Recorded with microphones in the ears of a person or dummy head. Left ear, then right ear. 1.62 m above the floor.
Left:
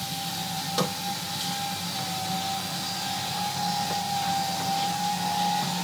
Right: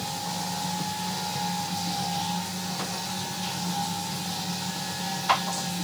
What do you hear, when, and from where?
Only background noise.